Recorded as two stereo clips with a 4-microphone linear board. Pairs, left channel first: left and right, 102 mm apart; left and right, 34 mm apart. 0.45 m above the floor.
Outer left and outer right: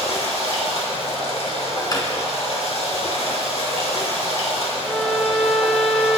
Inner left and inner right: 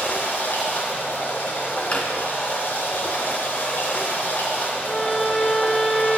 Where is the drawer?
40° left (ahead or behind), 1.6 m.